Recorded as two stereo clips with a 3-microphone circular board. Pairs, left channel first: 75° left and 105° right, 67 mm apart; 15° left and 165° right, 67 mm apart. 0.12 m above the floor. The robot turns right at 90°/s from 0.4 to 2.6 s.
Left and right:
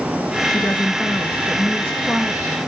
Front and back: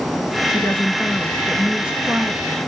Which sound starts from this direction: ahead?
A woman speaking, at 0.5 s.